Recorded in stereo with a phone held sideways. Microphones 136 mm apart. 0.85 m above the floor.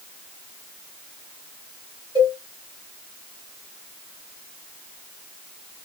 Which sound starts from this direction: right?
A cowbell, at 2.1 s.